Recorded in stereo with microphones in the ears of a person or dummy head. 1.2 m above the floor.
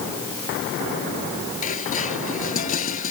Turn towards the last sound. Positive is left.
turn(degrees=45)  # may be behind; listen again after turning